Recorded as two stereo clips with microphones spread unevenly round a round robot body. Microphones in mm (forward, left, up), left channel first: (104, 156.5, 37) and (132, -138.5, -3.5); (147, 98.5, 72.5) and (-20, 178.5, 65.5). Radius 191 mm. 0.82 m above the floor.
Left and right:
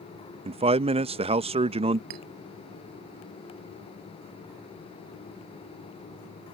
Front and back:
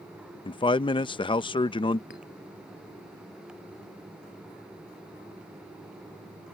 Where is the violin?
No violin in this recording.